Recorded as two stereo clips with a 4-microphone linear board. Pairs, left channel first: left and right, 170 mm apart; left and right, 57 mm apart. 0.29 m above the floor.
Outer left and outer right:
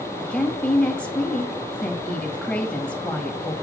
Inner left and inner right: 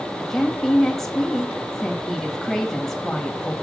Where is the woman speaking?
5° left (ahead or behind), 1.4 m.